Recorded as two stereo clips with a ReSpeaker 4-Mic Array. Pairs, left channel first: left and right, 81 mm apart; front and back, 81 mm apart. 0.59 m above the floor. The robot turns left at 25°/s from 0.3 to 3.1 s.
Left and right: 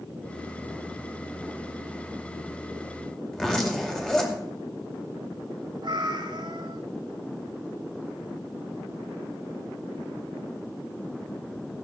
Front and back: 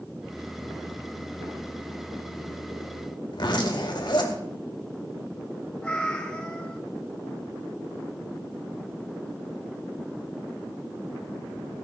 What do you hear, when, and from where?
3.3 s a zipper: 10° left, 2.5 m
5.8 s a cat meowing: 80° right, 1.8 m